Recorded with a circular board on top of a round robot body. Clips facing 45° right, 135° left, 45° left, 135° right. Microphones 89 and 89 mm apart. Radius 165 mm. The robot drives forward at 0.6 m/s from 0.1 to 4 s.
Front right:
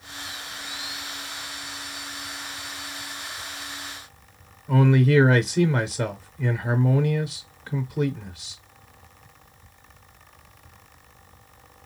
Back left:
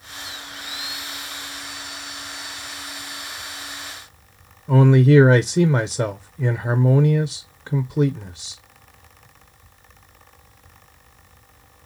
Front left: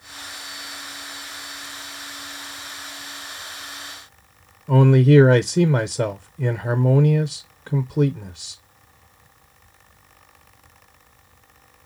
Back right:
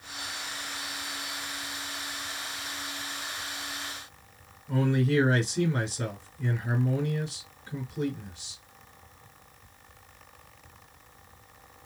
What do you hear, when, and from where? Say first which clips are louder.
4.7 s a man speaking: back left 5 dB, front left 11 dB; 70° left, 0.6 m